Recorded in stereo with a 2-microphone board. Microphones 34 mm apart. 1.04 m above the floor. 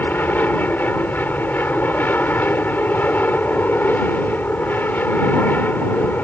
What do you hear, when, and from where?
0.0 s an aircraft: 65° left (ahead or behind)